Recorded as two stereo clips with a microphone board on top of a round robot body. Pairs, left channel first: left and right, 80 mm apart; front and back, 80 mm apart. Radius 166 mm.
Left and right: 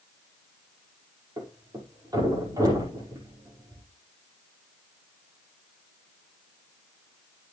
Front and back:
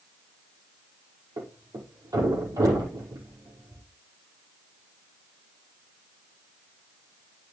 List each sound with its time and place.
1.4 s a thud: 135° right, 6 m